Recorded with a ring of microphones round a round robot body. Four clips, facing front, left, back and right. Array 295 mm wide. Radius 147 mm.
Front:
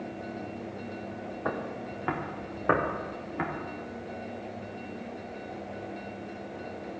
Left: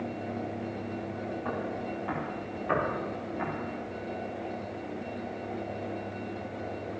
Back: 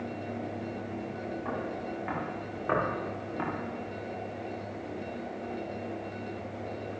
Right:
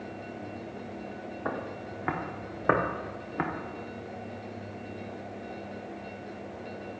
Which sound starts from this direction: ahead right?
Footsteps, at 1.4 s.